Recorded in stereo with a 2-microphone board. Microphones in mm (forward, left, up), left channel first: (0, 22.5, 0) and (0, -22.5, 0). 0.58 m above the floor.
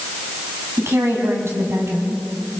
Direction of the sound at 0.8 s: 80° right.